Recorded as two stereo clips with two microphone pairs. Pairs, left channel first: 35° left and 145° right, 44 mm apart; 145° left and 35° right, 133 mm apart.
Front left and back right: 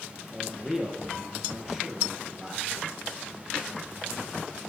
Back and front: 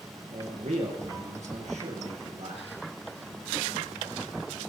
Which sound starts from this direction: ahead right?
A man speaking, at 0.3 s.